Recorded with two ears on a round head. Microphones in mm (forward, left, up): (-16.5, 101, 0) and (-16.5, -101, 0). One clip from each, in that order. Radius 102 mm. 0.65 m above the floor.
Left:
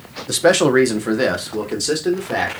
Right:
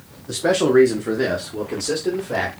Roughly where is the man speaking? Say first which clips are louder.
Left 3 dB; left.